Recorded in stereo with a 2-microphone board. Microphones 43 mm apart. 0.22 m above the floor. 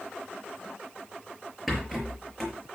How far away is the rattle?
About 5.5 m.